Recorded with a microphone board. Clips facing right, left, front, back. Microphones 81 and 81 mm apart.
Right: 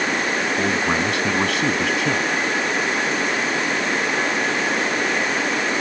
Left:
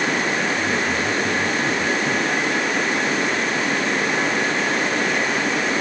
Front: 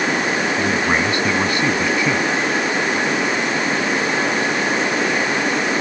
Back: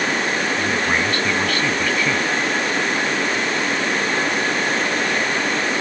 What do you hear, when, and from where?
0.6 s a man speaking: 75° right